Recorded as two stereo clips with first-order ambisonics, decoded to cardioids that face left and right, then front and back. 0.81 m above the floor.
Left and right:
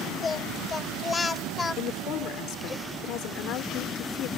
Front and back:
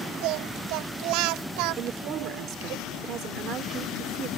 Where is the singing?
165° left.